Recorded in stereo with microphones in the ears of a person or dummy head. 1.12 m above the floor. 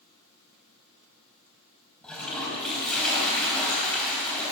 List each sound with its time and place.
2.0 s a toilet flushing: 10° left (ahead or behind), 3.5 m